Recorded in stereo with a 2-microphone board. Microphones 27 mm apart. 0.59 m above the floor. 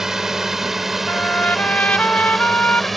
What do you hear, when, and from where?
0.0 s a drone: 20° right (ahead or behind); by 3.0 s 5° left (ahead or behind)
1.1 s a trumpet: 80° left